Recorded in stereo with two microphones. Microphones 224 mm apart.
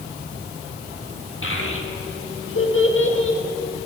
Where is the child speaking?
65° left (ahead or behind), 2 m.